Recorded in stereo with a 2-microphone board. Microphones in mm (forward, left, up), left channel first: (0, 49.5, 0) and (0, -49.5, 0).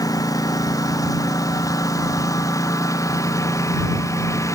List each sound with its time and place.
0.0 s a lawn mower: 40° left (ahead or behind); by 4.6 s 35° left (ahead or behind)